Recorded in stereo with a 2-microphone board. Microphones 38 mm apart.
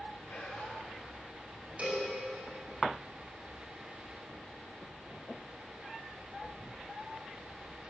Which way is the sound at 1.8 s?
40° right (ahead or behind).